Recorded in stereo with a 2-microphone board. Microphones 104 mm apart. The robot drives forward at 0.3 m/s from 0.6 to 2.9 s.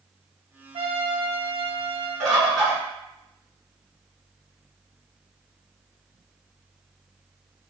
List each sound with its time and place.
0.7 s a trumpet: 70° right (ahead or behind), 0.7 m; by 2.1 s 55° right (ahead or behind), 0.9 m
2.2 s a bird: 5° left (ahead or behind), 1.3 m